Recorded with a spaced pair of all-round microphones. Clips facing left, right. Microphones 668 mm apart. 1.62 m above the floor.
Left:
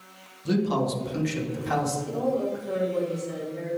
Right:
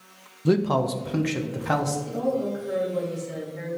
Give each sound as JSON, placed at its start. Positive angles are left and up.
{"t": 0.5, "sound": "a man speaking", "side_deg": -80, "distance_m": 0.8}
{"t": 2.1, "sound": "a woman speaking", "side_deg": -45, "distance_m": 3.0}